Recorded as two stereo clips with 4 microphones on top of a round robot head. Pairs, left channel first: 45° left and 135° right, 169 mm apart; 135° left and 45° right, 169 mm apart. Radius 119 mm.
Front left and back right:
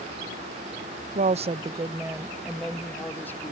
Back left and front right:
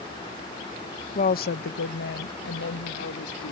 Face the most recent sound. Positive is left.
turn(degrees=120)